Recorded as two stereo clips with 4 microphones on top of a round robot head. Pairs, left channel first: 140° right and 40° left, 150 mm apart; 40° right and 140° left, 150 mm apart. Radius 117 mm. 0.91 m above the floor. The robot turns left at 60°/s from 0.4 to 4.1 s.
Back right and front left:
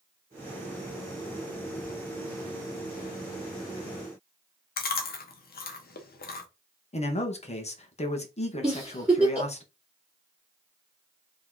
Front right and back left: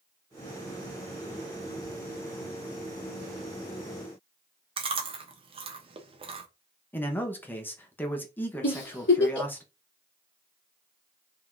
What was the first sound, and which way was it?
Chewing, 165° right.